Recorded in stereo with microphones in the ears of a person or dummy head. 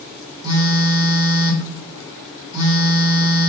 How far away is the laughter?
No laughter in this recording.